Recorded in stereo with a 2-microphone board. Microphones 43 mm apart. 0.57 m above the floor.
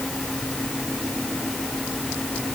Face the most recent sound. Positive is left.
No sound to turn to.